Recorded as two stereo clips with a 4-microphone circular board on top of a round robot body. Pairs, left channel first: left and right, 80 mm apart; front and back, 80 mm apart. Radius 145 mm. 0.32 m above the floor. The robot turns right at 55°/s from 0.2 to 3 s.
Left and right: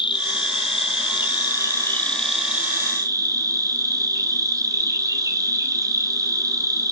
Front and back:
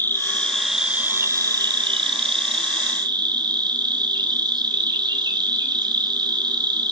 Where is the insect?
65° left, 1.1 m; by 6.9 s 140° right, 1.1 m.